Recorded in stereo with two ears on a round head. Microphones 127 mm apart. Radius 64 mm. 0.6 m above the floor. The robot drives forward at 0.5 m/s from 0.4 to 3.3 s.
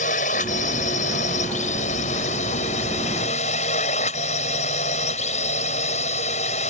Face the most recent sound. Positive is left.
turn(degrees=55)  # may be behind; listen again after turning